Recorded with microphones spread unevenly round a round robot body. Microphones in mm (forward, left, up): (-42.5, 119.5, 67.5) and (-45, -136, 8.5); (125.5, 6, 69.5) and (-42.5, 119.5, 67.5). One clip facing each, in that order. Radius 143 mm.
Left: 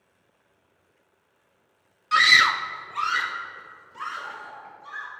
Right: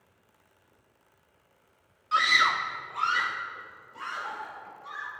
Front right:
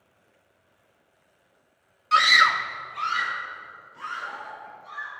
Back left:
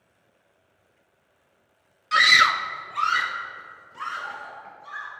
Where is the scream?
80° left, 0.6 m; by 5.1 s 155° left, 3.5 m.